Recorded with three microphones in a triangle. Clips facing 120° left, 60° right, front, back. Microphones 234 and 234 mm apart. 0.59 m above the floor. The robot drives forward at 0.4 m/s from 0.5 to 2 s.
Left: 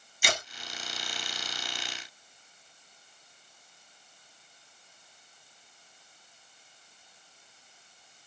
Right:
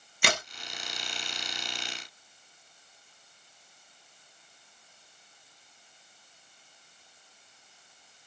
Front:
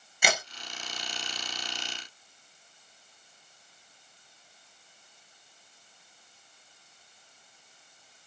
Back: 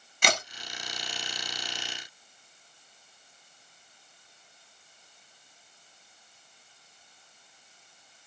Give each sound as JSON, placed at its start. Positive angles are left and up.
{"t": 0.2, "sound": "a crack", "azimuth_deg": -80, "distance_m": 1.8}